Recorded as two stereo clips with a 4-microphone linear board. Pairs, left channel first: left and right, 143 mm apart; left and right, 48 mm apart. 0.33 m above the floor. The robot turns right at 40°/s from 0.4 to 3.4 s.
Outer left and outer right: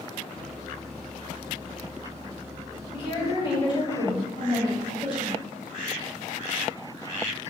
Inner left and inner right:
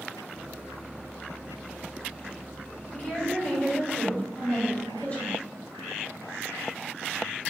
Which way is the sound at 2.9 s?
35° left (ahead or behind).